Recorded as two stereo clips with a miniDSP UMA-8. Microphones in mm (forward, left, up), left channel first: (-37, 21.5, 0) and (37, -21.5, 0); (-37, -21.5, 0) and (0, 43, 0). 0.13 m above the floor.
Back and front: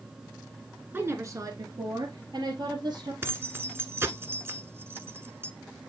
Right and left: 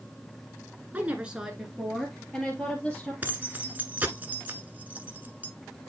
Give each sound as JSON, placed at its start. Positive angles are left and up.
{"t": 0.9, "sound": "a woman speaking", "azimuth_deg": 15, "distance_m": 1.5}
{"t": 3.2, "sound": "keys jangling", "azimuth_deg": 10, "distance_m": 1.2}